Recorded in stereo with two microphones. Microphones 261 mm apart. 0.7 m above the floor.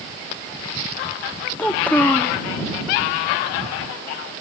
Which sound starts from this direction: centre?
A child speaking, at 1.6 s.